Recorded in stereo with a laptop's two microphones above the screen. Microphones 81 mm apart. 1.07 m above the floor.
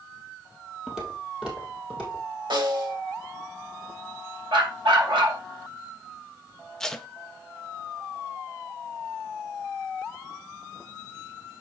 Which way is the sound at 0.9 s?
5° right (ahead or behind).